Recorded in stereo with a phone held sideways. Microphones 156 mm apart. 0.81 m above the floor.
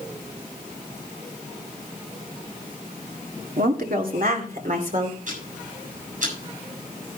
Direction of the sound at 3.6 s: 65° right (ahead or behind).